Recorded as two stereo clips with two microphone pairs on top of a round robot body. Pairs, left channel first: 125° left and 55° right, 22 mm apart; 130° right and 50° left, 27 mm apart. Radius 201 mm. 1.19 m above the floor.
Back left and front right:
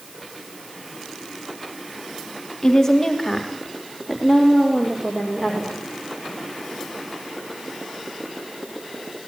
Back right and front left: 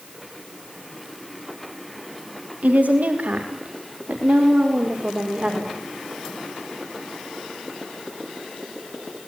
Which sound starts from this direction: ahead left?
A woman speaking, at 2.6 s.